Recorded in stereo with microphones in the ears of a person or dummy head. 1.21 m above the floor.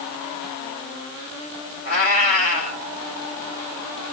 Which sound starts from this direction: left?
A cat meowing, at 1.9 s.